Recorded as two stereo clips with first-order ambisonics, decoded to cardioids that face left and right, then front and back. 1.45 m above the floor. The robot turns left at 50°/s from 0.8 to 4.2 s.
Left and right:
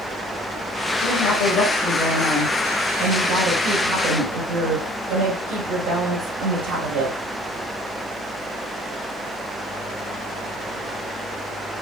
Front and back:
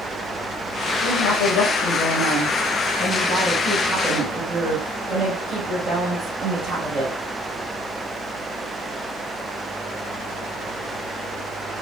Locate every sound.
1.0 s a woman speaking: 55° left, 2 m; by 7.2 s 100° right, 2 m